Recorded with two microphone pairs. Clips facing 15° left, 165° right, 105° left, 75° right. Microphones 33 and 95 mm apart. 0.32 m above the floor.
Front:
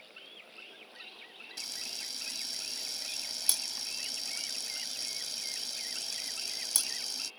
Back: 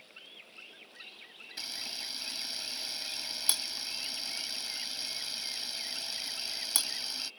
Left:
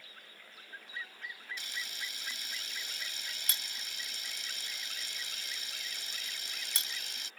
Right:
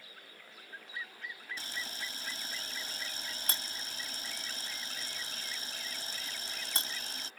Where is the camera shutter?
110° right.